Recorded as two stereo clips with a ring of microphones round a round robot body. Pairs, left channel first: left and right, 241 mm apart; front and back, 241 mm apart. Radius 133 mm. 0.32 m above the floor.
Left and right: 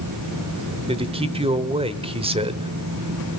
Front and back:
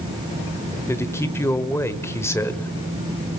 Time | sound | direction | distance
0.9 | a man speaking | 65° right | 1.0 m